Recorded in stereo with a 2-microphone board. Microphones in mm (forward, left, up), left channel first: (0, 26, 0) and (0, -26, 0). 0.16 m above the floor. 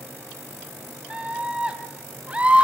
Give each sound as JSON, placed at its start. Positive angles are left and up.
{"t": 1.1, "sound": "a scream", "side_deg": -20, "distance_m": 2.0}